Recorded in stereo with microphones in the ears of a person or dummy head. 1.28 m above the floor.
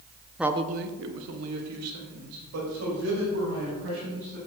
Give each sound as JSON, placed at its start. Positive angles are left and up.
{"t": 0.4, "sound": "a man speaking", "side_deg": -5, "distance_m": 0.5}